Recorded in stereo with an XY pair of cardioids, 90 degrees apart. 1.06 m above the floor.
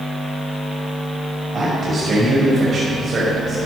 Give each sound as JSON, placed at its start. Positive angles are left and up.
{"t": 1.5, "sound": "a man speaking", "azimuth_deg": -45, "distance_m": 5.0}